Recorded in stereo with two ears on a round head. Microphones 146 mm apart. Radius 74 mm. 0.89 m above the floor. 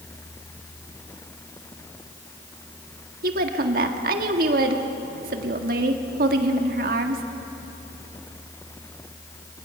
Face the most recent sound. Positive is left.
turn(degrees=-55)  # may be behind; listen again after turning